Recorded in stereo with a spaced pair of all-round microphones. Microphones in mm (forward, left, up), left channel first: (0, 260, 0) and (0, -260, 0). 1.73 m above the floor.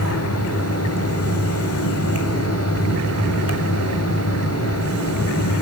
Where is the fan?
30° left (ahead or behind), 3 m.